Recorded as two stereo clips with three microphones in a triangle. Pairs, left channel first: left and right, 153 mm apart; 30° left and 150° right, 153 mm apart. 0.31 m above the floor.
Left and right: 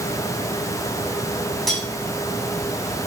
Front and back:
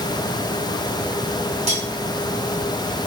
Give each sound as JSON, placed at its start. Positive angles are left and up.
{"t": 1.7, "sound": "cutlery clinking", "azimuth_deg": 180, "distance_m": 1.5}